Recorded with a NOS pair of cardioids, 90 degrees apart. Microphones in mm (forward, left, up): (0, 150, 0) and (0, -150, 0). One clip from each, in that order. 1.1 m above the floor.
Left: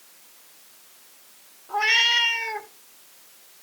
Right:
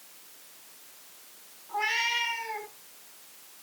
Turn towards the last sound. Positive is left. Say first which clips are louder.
# left 8 dB
turn(degrees=70)